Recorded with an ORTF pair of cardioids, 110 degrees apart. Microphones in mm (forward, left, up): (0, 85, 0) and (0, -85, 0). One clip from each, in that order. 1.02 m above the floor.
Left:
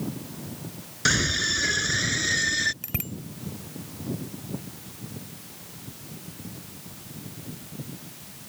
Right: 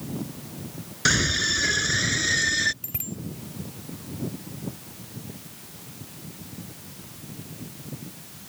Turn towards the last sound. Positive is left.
turn(degrees=35)